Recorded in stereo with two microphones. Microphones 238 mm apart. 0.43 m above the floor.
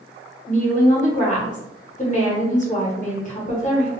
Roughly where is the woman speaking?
Left.